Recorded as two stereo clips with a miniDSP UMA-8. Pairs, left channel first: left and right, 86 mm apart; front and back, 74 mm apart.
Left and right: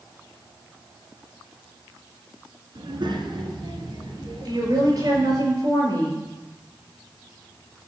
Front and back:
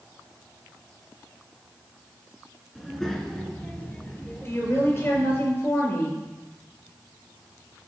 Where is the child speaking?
90° right, 2 m; by 5.5 s 60° right, 4 m.